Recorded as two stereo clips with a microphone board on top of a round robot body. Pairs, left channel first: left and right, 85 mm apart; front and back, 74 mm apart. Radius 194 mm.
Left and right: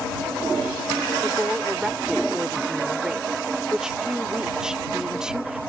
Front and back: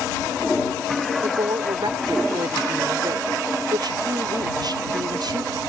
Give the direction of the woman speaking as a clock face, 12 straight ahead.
6 o'clock.